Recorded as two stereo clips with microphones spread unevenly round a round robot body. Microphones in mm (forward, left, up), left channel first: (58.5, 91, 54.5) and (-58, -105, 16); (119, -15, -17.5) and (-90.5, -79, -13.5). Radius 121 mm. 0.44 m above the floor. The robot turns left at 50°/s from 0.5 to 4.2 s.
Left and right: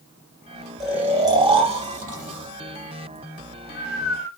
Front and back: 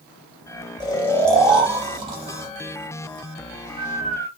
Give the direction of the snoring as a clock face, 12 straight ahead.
1 o'clock.